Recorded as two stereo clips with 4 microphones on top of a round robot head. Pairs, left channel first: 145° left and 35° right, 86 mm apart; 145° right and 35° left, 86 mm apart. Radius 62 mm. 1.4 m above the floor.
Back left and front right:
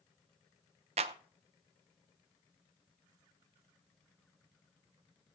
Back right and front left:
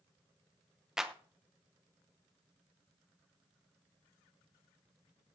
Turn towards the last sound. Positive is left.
turn(degrees=-45)